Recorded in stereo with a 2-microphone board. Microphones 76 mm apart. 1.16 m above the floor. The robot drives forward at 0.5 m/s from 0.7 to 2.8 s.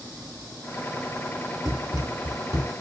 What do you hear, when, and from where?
1.6 s running footsteps: 50° right (ahead or behind), 1.7 m; by 2.7 s 45° right (ahead or behind), 2 m